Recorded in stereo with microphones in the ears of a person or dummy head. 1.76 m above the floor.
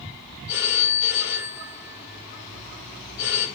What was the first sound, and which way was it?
A phone ringing, 60° left (ahead or behind).